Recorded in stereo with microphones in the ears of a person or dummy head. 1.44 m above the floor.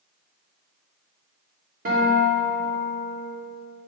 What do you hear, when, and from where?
1.9 s a guitar: 40° right (ahead or behind), 2.5 m